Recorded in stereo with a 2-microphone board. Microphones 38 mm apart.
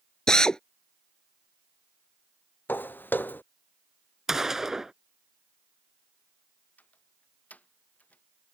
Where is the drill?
20° left (ahead or behind).